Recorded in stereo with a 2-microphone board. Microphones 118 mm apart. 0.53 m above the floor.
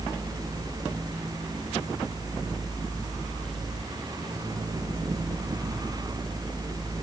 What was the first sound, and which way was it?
Only background noise.